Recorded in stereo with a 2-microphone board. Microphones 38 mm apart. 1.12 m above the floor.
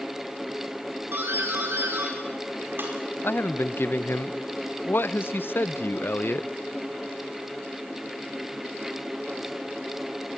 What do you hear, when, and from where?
1.1 s a doorbell: 65° right (ahead or behind), 5 m
3.2 s a man speaking: 70° left (ahead or behind), 0.7 m